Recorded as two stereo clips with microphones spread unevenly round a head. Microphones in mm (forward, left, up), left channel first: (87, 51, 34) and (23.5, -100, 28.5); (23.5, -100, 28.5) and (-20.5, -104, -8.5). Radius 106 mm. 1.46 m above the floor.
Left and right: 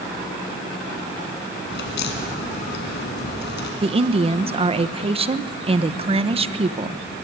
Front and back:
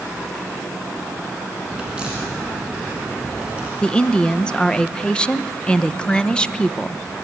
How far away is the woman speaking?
About 1.1 m.